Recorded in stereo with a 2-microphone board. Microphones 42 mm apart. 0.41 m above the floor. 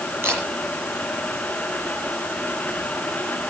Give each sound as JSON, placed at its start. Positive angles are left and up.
{"t": 0.2, "sound": "a camera shutter", "side_deg": -55, "distance_m": 8.5}